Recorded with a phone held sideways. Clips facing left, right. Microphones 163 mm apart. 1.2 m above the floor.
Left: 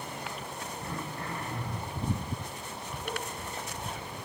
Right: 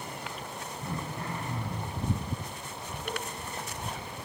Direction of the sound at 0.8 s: 15° right (ahead or behind).